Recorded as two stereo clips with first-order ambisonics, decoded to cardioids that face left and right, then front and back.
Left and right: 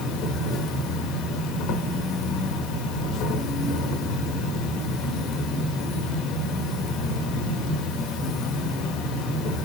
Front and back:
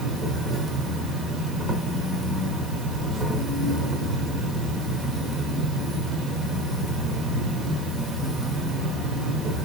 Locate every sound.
0.0 s an insect: 110° left, 1.2 m